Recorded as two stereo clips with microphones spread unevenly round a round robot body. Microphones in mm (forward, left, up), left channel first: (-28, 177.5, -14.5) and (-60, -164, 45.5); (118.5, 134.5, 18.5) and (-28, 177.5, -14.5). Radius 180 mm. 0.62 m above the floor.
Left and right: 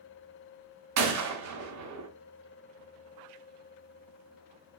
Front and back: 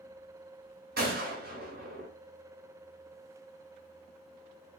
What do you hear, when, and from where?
1.0 s a gunshot: 140° right, 0.7 m